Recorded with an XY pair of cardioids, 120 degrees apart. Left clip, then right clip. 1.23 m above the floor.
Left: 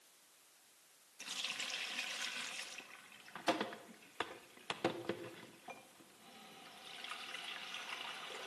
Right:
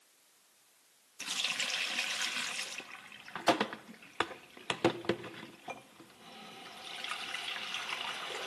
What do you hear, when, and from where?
1.2 s a running tap: 45° right, 1.0 m